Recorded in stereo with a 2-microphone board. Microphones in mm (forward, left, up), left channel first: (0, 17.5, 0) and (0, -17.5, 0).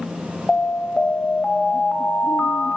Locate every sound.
0.5 s an alarm: 45° left (ahead or behind), 0.7 m